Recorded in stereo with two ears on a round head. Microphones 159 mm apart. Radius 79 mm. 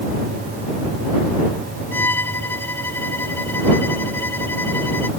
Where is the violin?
10° left (ahead or behind).